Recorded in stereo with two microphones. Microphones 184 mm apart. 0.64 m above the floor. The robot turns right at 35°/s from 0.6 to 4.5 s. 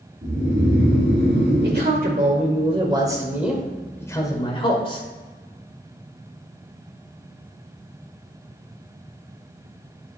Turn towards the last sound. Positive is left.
turn(degrees=30)